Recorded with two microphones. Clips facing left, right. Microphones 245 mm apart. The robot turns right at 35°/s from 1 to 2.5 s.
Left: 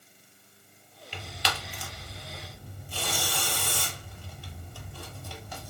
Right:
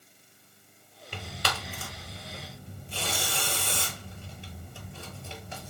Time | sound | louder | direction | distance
1.1 | tearing paper | right 1 dB | 55° right (ahead or behind) | 0.7 m